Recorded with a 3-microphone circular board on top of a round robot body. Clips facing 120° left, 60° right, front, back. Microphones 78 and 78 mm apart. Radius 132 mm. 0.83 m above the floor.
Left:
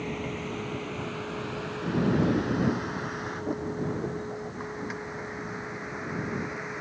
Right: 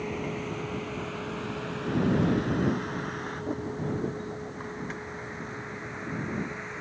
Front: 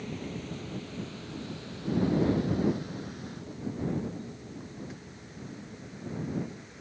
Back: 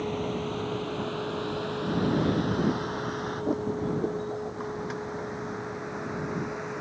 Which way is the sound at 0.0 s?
145° right.